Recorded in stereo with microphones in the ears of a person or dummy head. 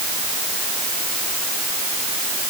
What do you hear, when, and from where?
Only background noise.